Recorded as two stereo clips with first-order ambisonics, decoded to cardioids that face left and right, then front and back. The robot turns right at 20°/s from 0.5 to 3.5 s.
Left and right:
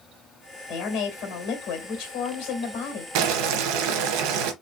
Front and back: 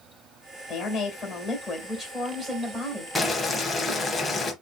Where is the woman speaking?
60° left, 2 m; by 3.0 s 110° left, 2 m.